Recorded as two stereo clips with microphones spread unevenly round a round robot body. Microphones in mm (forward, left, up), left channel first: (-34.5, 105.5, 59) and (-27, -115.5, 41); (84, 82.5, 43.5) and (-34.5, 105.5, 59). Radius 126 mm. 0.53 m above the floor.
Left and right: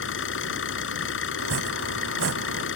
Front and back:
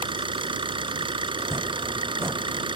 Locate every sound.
0.0 s an engine running: 125° left
1.4 s chopping: 115° right